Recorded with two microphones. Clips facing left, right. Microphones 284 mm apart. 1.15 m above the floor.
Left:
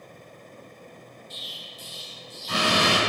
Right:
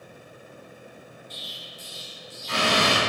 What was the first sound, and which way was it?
An explosion, 50° left (ahead or behind).